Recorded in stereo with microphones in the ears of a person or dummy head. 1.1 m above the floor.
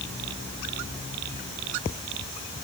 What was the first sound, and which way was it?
Only background noise.